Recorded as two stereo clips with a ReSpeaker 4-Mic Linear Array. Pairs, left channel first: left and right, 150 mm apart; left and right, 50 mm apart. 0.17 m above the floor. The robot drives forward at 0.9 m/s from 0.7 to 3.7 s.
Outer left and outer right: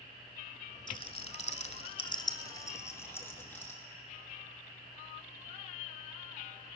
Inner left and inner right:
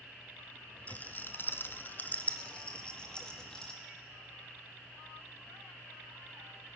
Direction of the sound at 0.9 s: 30° left (ahead or behind).